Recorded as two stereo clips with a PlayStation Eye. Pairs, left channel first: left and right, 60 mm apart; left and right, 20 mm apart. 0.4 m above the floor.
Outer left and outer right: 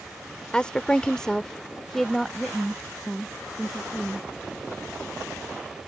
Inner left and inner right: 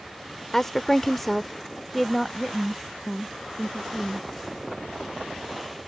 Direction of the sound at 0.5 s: 15° left (ahead or behind).